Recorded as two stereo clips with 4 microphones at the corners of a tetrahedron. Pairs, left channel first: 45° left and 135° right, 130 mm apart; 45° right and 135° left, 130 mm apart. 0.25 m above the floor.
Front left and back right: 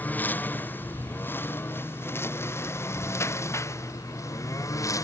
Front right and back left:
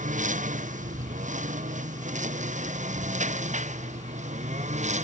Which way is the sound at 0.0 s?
125° left.